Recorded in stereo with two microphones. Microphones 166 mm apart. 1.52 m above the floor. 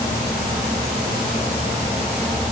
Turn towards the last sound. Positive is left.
No sound to turn to.